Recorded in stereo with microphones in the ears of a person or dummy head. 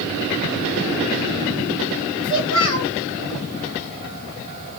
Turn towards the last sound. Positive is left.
turn(degrees=25)  # may be behind; listen again after turning